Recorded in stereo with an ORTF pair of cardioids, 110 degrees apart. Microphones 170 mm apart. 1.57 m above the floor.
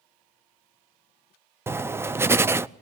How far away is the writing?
About 0.5 m.